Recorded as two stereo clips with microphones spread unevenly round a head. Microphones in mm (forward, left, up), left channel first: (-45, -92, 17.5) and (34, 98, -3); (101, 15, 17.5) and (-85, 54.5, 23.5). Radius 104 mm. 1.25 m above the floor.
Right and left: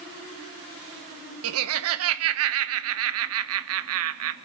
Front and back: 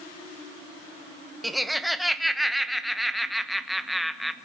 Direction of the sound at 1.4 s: 80° left.